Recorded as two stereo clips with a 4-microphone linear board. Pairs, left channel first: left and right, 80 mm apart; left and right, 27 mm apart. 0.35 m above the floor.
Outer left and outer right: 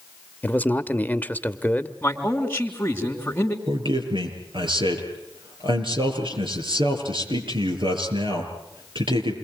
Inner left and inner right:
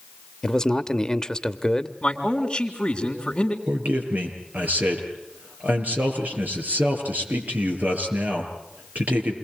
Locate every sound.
0.4 s a man speaking: 20° left (ahead or behind), 1.2 m
2.0 s a man speaking: 25° left (ahead or behind), 3.5 m
3.7 s a man speaking: 80° right, 7 m